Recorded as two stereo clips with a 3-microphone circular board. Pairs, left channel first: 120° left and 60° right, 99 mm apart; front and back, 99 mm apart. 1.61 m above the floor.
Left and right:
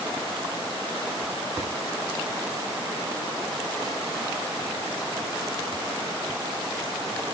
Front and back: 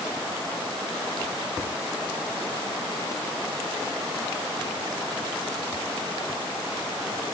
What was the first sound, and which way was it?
Only background noise.